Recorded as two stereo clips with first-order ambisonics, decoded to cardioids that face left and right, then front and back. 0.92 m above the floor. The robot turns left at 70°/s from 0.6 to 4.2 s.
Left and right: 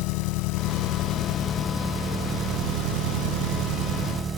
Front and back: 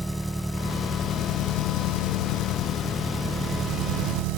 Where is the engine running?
95° left; by 4.4 s 160° right.